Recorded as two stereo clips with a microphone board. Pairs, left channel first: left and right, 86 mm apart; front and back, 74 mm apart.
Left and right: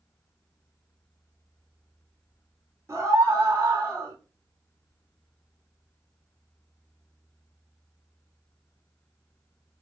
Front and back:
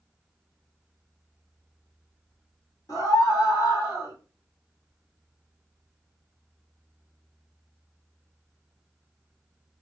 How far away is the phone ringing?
No phone ringing in this recording.